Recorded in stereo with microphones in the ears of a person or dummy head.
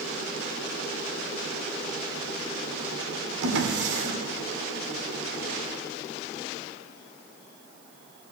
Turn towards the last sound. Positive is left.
turn(degrees=-70)  # may be behind; listen again after turning